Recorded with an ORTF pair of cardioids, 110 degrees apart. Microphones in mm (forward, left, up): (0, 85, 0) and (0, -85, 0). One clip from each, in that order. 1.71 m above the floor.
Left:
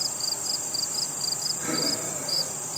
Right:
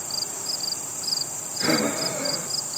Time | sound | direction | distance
1.6 | breathing | 50° right | 1.5 m